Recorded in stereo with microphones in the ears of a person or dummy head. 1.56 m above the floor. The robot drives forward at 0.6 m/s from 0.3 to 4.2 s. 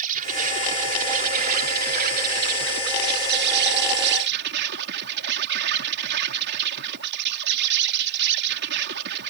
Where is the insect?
45° right (ahead or behind); by 9.3 s 65° right (ahead or behind).